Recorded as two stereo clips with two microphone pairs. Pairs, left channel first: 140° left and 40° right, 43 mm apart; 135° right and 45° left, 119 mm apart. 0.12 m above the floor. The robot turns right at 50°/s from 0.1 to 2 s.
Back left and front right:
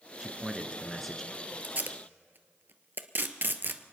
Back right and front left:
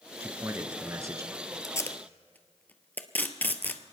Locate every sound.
0.2 s a man speaking: 10° left, 1.1 m; by 1.3 s 65° left, 1.1 m
1.6 s tape being pulled: 75° right, 0.9 m; by 3.8 s 60° right, 0.9 m